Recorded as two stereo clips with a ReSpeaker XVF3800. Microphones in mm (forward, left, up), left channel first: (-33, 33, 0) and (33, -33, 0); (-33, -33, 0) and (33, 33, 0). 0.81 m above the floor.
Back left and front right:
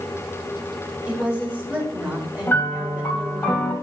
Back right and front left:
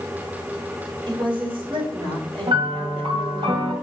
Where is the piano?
65° left, 2 m.